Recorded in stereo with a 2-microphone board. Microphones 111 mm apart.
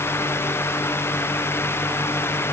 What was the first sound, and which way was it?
Only background noise.